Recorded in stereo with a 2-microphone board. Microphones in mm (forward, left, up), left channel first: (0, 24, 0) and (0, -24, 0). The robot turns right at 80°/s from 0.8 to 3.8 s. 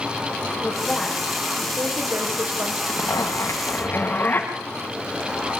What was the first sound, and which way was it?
A woman speaking, 145° left.